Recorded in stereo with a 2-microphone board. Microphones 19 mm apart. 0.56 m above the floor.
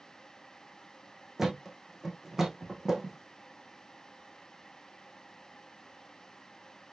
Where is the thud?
20° right (ahead or behind), 3 m.